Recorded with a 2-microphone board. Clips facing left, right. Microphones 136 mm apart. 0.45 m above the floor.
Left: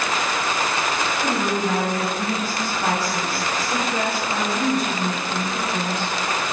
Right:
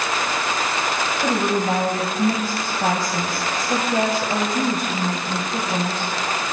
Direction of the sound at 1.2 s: 45° right (ahead or behind).